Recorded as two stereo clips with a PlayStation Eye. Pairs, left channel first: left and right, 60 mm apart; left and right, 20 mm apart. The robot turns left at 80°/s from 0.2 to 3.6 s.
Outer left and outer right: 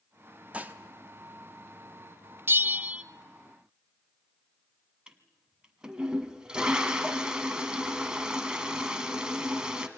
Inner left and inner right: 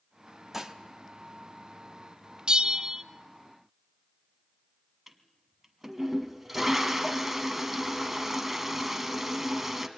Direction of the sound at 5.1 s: 15° right (ahead or behind).